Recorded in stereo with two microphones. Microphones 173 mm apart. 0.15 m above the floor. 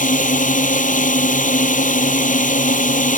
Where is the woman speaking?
I don't hear a woman speaking.